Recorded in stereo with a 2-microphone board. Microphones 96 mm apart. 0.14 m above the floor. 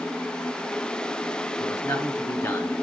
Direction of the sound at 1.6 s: 35° left (ahead or behind).